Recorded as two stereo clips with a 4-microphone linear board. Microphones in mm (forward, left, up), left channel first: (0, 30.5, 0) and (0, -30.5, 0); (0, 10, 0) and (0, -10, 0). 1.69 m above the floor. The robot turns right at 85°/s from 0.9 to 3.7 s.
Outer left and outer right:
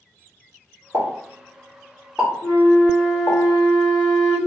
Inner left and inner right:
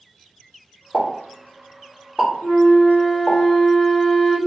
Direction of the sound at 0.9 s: 40° right (ahead or behind).